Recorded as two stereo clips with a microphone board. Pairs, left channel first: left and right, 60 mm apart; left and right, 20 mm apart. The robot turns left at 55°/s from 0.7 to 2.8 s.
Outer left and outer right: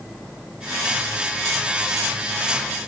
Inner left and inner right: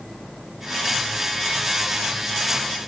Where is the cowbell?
I don't hear a cowbell.